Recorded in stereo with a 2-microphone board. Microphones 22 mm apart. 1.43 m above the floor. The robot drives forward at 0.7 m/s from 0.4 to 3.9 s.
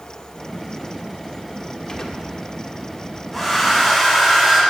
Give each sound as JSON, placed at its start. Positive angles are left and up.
{"t": 1.9, "sound": "a gunshot", "side_deg": 25, "distance_m": 1.4}
{"t": 3.3, "sound": "a hair dryer", "side_deg": -5, "distance_m": 4.5}